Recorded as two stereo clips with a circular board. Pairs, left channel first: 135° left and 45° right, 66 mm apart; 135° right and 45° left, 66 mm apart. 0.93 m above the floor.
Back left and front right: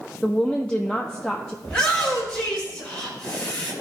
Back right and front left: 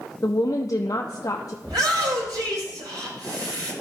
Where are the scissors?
I don't hear scissors.